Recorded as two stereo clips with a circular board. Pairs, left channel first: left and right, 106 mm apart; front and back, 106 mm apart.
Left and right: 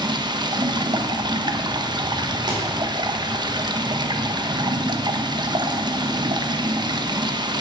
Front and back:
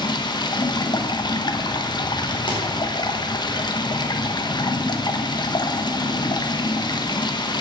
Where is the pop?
45° right, 4 m.